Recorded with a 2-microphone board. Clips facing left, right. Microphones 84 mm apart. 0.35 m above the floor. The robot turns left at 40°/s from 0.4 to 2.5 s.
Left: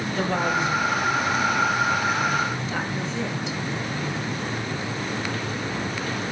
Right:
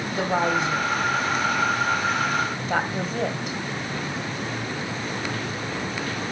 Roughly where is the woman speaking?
Centre.